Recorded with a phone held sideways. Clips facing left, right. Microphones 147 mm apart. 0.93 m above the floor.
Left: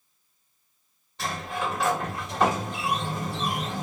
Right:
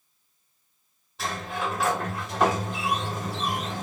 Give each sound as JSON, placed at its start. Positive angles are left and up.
{"t": 1.2, "sound": "a sliding door", "side_deg": 0, "distance_m": 1.6}